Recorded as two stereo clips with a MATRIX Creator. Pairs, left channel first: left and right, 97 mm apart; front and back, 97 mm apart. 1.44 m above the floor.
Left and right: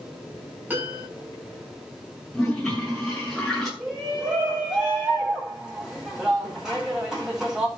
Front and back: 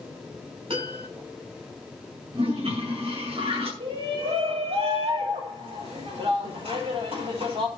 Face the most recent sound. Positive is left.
turn(degrees=-175)